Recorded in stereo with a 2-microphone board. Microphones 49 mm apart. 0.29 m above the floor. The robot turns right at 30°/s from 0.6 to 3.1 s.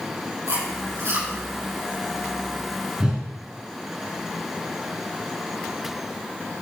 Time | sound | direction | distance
0.5 | chewing | 65° right (ahead or behind) | 5.5 m
3.0 | a whoosh | 10° right (ahead or behind) | 2.5 m